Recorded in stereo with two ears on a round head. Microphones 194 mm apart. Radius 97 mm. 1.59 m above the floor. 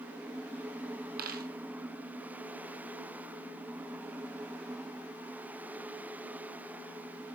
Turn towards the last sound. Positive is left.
turn(degrees=-45)  # may be behind; listen again after turning